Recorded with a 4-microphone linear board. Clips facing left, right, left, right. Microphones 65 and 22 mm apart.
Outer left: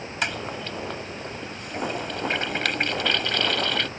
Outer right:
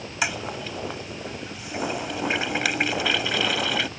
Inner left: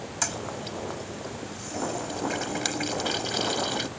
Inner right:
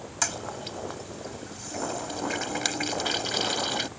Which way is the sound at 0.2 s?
5° right (ahead or behind).